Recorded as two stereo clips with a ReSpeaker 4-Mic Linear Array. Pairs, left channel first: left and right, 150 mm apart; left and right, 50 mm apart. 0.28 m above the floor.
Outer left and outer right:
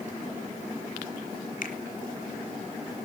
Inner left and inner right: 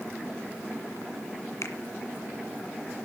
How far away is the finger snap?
About 2.0 m.